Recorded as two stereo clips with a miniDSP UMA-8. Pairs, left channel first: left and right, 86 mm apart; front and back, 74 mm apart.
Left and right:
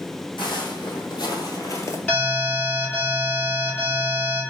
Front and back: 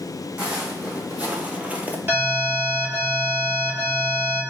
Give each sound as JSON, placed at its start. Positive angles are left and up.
{"t": 0.4, "sound": "footsteps", "azimuth_deg": 110, "distance_m": 1.4}
{"t": 2.1, "sound": "an alarm", "azimuth_deg": 150, "distance_m": 2.0}